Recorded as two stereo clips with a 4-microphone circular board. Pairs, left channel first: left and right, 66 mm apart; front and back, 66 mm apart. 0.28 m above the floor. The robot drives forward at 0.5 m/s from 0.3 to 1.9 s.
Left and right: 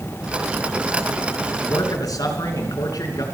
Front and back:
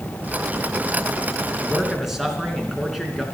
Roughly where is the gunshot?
I don't hear a gunshot.